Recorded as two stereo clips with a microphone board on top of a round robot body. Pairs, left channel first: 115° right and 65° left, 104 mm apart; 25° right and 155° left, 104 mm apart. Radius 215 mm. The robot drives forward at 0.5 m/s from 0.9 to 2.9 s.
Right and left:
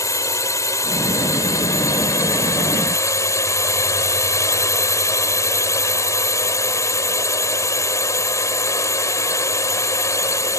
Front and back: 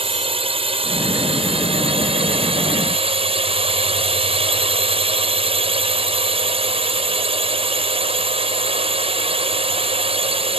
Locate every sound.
0.0 s a drone: 175° right